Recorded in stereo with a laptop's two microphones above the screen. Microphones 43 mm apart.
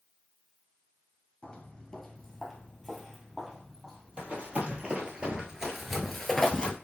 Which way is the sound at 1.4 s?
20° left (ahead or behind).